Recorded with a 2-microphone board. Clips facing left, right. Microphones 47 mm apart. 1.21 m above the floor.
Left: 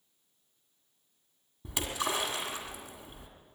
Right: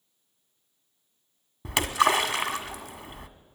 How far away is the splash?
About 1.7 m.